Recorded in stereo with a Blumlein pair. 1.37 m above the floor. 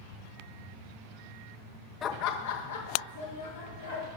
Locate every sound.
2.0 s laughter: 20° left, 0.5 m; by 4.1 s 65° left, 3.5 m